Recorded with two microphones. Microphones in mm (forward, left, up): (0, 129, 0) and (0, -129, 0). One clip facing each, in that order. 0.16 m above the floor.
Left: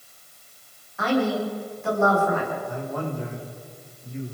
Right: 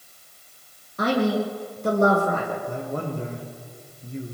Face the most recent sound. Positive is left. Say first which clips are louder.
# right 1 dB
turn(degrees=-35)  # may be behind; listen again after turning